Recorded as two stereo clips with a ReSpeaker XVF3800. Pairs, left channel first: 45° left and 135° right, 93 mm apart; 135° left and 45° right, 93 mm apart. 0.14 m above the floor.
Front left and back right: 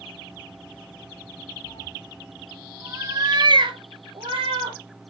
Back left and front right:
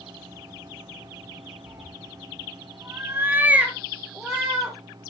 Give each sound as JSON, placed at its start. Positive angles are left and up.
{"t": 1.7, "sound": "a cat meowing", "azimuth_deg": 20, "distance_m": 1.3}